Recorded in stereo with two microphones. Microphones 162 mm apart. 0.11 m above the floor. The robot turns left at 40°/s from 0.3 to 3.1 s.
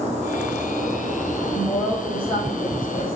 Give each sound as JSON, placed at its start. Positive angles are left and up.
{"t": 1.5, "sound": "a woman speaking", "azimuth_deg": 175, "distance_m": 4.5}